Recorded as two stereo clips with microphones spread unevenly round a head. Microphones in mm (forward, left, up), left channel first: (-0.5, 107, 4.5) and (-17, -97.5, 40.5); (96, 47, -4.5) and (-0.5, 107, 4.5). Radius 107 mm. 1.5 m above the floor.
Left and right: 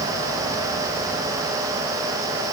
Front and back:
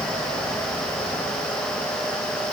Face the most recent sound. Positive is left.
No sound to turn to.